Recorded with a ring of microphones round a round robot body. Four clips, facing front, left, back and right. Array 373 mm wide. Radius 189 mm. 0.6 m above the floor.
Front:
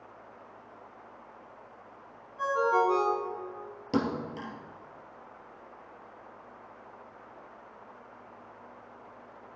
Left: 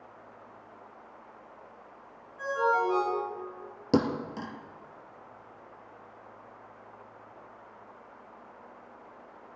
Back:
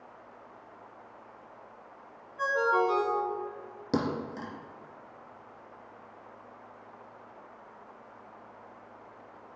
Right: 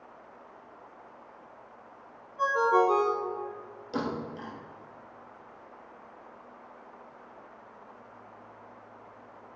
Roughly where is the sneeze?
No sneeze in this recording.